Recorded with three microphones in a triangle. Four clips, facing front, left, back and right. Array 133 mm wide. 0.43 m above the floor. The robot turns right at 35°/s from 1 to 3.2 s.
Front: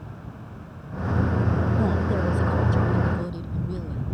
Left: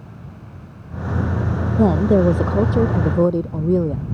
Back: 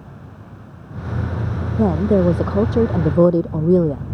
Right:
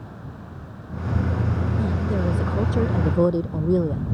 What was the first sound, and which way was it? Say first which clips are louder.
A woman speaking: left 14 dB, back 9 dB; 125° left.